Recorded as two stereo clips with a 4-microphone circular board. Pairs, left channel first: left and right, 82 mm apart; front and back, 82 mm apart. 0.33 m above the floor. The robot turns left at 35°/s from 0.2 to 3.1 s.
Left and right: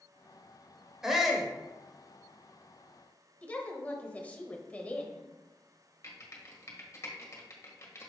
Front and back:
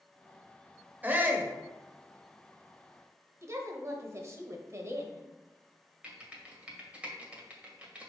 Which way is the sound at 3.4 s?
155° left.